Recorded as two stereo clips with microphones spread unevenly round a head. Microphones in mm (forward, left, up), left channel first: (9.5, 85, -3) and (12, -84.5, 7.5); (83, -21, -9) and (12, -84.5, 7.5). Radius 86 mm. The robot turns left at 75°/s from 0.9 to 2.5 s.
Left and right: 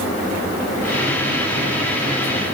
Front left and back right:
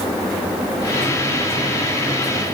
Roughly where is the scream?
I don't hear a scream.